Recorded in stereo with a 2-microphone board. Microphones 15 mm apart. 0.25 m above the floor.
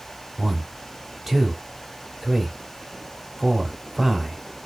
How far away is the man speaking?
About 1.1 m.